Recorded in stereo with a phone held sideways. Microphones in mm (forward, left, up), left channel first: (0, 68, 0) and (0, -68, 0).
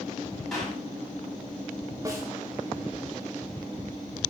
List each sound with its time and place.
0.5 s a clap: centre (ahead or behind), 9.5 m
2.0 s a snare drum: 25° right (ahead or behind), 4.5 m